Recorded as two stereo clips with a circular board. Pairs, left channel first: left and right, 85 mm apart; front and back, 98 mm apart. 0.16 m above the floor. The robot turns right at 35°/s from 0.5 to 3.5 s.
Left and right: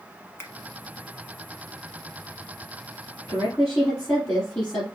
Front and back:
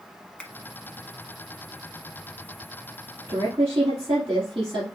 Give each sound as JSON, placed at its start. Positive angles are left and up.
{"t": 0.4, "sound": "a finger snap", "azimuth_deg": 70, "distance_m": 1.1}
{"t": 3.3, "sound": "a woman speaking", "azimuth_deg": 130, "distance_m": 2.5}